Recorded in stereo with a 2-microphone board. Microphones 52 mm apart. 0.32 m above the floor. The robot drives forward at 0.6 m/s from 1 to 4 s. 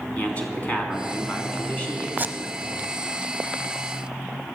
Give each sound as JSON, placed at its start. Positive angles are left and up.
{"t": 0.2, "sound": "a man speaking", "side_deg": 30, "distance_m": 3.5}
{"t": 2.2, "sound": "tape being pulled", "side_deg": -30, "distance_m": 0.9}